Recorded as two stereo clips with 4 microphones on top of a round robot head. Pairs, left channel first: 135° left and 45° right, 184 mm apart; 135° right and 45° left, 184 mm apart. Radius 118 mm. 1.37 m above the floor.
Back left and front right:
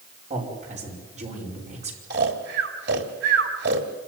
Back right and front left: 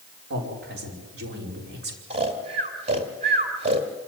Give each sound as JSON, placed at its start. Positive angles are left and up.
{"t": 0.3, "sound": "a man speaking", "azimuth_deg": 10, "distance_m": 5.0}
{"t": 2.1, "sound": "snoring", "azimuth_deg": -10, "distance_m": 1.7}